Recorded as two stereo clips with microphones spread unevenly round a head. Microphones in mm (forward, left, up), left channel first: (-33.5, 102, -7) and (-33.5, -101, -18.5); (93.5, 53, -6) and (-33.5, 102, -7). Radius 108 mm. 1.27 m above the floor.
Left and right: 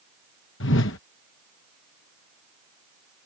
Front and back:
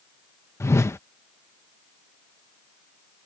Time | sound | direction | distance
0.6 | a whoosh | 50° left | ?